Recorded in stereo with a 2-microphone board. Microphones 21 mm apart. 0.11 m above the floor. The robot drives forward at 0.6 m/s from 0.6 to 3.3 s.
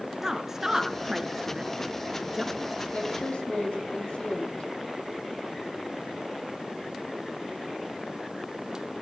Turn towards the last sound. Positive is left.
turn(degrees=65)  # may be behind; listen again after turning